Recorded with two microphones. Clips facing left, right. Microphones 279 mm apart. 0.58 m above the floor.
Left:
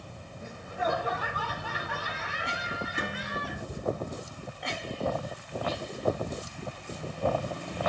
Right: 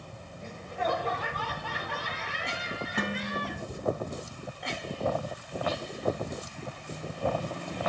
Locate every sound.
0.4 s laughter: 10° left (ahead or behind), 5 m
3.0 s dishes clattering: 75° right (ahead or behind), 2 m